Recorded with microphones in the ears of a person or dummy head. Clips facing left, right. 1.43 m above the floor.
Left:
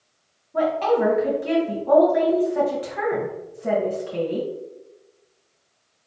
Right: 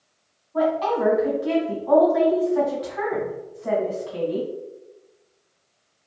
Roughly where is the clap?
No clap in this recording.